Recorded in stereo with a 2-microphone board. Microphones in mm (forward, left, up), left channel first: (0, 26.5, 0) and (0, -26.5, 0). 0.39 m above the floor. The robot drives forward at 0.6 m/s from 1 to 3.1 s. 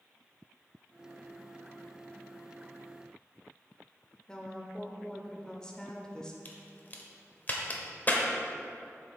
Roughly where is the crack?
Left.